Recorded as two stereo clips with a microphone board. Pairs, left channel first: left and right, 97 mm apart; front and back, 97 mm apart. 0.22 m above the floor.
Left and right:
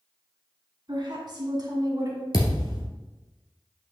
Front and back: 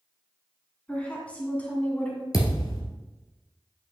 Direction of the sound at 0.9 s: 75° right.